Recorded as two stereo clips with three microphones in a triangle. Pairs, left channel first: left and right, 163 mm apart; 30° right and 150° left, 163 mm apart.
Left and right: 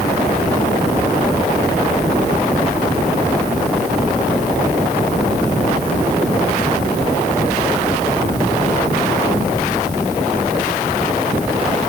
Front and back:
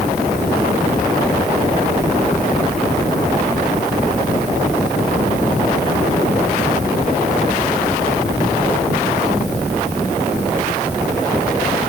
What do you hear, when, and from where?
Only background noise.